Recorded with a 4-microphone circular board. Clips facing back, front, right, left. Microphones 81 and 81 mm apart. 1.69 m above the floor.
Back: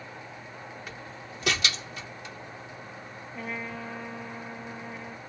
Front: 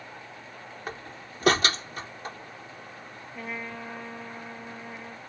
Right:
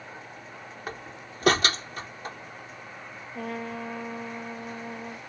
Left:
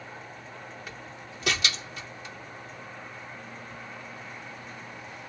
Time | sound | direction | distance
0.9 | a door slam | 45° right | ?
3.4 | a trumpet | 90° right | ?